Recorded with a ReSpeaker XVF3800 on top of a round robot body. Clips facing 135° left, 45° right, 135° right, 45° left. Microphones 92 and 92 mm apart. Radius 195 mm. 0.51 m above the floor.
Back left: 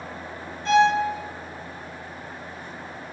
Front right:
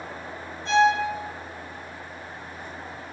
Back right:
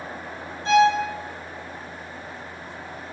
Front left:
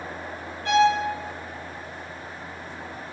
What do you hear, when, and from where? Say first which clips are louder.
0.7 s a violin: back left 2 dB, back right 2 dB; 155° left, 0.9 m